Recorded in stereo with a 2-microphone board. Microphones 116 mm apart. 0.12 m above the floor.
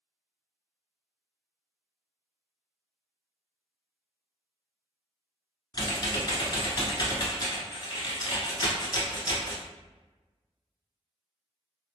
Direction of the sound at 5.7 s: 35° left (ahead or behind).